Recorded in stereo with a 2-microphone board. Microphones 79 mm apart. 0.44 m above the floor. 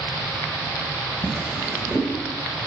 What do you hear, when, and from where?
1.2 s a drawer: 15° right (ahead or behind), 1.1 m